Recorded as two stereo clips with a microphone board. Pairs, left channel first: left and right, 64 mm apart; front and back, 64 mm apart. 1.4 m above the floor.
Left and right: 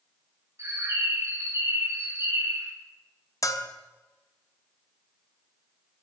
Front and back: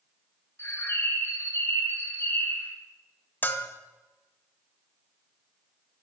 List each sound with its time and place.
0.6 s a bird: 50° right, 1.8 m
3.4 s a bell: 60° left, 1.0 m